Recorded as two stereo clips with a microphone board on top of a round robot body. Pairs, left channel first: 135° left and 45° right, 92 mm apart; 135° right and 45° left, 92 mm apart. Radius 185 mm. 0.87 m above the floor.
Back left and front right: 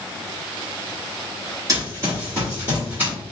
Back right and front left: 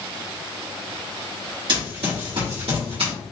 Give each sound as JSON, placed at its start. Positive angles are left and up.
{"t": 1.7, "sound": "running footsteps", "azimuth_deg": 10, "distance_m": 2.0}